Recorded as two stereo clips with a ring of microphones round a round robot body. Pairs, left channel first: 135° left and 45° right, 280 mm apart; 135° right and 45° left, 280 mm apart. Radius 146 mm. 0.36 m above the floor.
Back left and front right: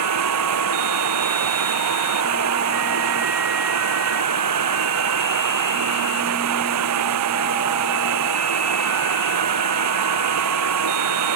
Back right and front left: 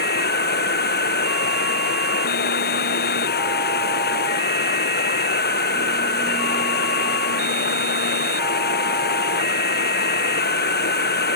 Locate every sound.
0.0 s running water: 80° right